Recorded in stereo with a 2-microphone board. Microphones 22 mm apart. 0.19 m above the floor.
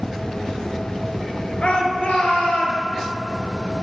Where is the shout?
60° left (ahead or behind), 2.5 m.